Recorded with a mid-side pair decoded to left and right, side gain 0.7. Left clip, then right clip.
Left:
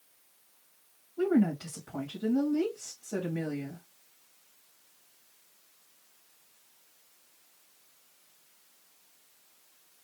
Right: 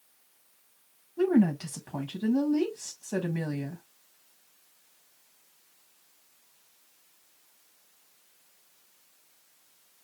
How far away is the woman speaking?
About 1.4 m.